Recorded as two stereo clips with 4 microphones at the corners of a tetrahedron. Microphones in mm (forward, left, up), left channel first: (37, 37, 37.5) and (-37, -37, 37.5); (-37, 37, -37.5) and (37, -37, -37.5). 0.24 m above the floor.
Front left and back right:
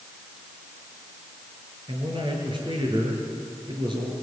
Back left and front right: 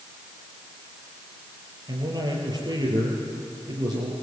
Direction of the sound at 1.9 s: 95° right.